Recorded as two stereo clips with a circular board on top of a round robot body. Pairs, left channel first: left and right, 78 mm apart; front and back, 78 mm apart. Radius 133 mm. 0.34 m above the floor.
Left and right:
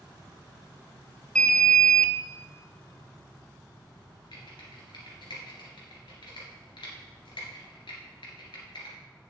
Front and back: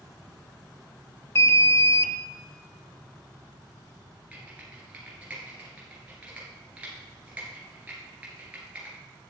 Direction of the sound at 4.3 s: 105° left.